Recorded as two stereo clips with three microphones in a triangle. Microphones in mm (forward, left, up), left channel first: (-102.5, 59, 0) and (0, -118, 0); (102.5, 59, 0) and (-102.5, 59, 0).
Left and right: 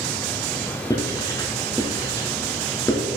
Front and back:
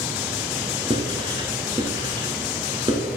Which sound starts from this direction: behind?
Writing, at 0.9 s.